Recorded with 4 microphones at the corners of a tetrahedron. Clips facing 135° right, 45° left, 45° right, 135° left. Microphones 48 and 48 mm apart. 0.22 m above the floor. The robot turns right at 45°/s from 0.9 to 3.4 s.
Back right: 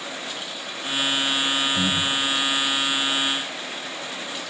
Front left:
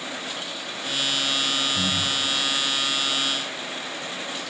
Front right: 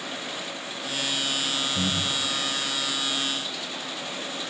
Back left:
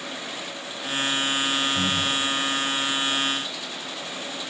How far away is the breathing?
About 4 m.